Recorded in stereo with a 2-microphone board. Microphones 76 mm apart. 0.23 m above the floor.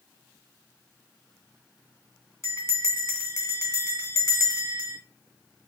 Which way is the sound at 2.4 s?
35° left (ahead or behind).